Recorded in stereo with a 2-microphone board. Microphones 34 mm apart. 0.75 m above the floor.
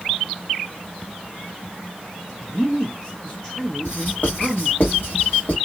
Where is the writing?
65° left (ahead or behind), 1.9 m.